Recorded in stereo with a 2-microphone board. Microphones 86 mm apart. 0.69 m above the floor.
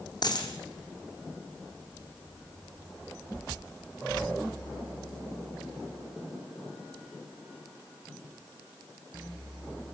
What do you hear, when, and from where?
0.2 s a dropped coin: 55° left (ahead or behind), 3 m